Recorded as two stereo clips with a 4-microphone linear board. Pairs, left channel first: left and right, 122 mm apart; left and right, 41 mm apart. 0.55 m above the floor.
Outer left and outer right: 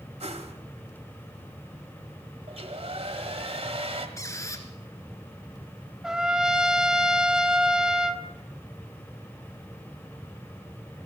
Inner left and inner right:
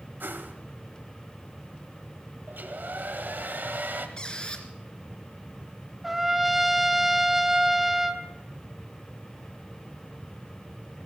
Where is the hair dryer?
65° right (ahead or behind), 2.0 m.